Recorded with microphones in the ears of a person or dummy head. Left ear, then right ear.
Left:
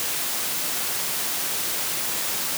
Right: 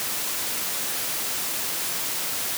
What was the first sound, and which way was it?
Only background noise.